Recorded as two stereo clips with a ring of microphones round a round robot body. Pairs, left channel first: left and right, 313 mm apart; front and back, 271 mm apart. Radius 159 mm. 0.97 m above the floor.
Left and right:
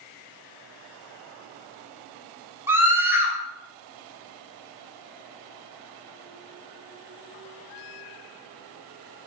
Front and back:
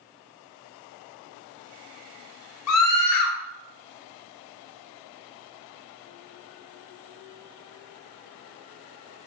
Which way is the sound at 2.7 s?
5° right.